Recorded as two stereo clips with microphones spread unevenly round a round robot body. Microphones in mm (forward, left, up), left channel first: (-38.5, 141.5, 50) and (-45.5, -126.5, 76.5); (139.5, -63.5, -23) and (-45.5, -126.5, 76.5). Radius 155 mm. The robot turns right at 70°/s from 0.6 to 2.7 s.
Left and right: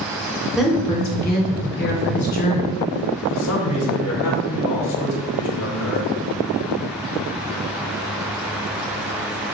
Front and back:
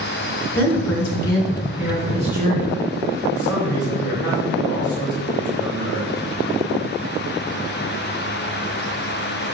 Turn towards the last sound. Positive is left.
turn(degrees=65)